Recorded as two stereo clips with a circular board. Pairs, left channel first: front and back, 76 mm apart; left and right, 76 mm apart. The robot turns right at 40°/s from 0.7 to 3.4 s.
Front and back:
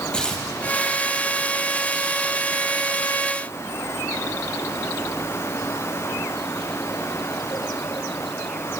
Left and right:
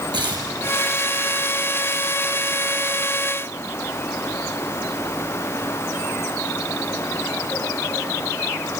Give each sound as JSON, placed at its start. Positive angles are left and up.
{"t": 0.1, "sound": "tearing paper", "azimuth_deg": -80, "distance_m": 3.0}